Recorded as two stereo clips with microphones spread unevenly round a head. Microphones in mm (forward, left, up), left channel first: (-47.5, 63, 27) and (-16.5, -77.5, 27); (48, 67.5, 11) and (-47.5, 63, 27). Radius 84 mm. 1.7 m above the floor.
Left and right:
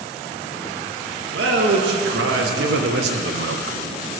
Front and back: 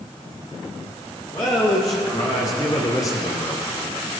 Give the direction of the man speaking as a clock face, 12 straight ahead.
2 o'clock.